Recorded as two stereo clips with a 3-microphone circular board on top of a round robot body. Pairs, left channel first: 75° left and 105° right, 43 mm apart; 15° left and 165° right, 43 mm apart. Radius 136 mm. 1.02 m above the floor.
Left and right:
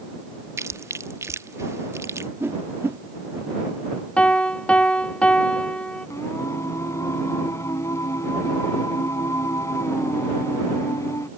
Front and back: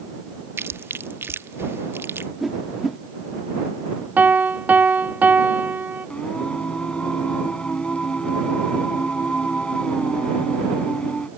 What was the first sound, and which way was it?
Chewing, 125° right.